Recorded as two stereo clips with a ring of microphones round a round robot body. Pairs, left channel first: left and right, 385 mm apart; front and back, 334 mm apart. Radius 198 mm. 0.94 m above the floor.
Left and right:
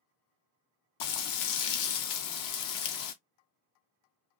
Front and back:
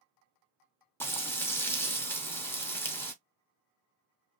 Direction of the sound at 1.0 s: 80° left.